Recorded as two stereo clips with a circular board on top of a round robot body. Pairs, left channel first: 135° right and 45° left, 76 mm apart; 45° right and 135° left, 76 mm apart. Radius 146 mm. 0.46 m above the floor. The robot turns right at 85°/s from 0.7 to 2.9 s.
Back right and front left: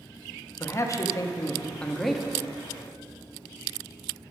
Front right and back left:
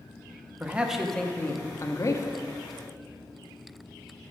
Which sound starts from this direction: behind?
A man speaking, at 0.6 s.